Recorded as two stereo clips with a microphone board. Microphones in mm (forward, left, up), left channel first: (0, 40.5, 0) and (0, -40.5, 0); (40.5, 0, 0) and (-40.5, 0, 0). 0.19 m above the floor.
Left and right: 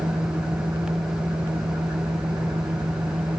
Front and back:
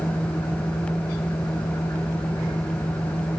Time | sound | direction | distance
0.0 | an engine running | 50° right | 6 m